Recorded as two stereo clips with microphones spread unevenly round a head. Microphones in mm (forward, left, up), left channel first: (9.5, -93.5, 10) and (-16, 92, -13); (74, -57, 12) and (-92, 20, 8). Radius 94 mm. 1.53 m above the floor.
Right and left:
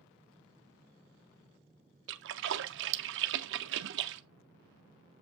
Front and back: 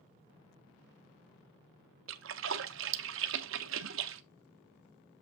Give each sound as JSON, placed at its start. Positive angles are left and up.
{"t": 2.1, "sound": "a splash", "azimuth_deg": 130, "distance_m": 0.7}